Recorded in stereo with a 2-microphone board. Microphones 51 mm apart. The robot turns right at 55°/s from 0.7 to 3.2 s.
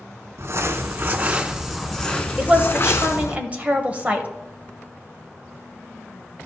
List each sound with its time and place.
0.4 s crumpling: 65° right, 0.8 m; by 3.4 s 75° left, 0.8 m
2.4 s a woman speaking: 15° right (ahead or behind), 1.0 m; by 4.3 s 30° right (ahead or behind), 1.0 m